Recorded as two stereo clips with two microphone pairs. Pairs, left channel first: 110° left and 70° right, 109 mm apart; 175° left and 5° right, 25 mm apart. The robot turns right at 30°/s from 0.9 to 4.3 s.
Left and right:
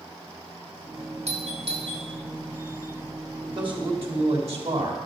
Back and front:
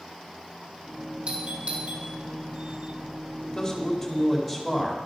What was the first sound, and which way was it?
A doorbell, 50° right.